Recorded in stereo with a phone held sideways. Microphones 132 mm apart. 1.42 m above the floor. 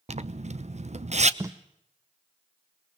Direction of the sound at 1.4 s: 25° right (ahead or behind).